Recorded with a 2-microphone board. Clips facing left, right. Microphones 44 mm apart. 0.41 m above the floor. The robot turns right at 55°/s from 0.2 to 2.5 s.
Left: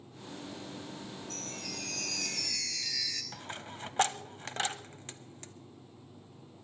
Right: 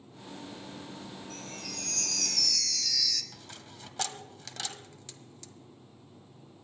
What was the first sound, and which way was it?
A chime, 20° right.